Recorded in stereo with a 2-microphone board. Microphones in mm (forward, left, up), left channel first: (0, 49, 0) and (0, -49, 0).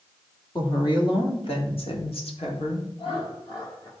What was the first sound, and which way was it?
A woman speaking, 55° left (ahead or behind).